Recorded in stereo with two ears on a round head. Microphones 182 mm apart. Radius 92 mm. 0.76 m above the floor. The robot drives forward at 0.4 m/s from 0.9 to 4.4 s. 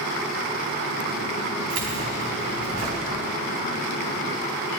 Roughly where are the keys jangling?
Right.